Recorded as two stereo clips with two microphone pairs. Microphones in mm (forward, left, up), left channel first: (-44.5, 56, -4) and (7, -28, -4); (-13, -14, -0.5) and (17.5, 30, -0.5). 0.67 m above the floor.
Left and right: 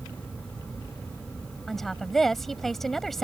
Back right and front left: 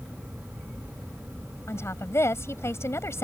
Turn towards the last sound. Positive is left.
turn(degrees=-150)